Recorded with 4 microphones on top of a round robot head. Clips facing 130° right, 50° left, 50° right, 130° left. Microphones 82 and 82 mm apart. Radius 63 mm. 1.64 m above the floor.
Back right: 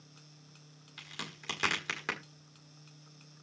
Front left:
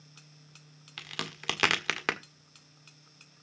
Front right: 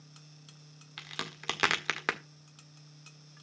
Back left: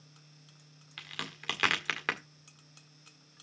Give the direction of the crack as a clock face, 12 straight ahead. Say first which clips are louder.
Front left 6 dB, front right 1 dB; 11 o'clock.